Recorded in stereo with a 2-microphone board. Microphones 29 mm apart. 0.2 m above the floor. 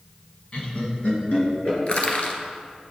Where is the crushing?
40° left (ahead or behind), 0.9 m.